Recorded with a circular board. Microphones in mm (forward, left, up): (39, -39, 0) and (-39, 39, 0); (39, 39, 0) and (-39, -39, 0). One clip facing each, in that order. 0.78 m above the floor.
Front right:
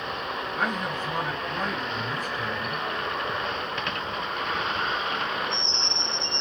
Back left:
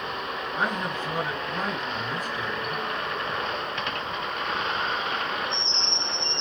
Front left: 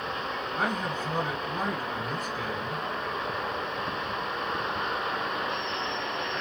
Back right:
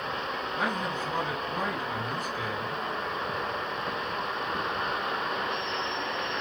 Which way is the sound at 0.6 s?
75° left.